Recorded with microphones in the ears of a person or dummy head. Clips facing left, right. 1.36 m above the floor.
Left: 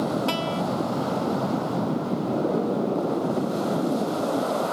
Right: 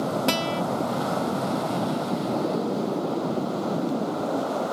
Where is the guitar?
15° right (ahead or behind).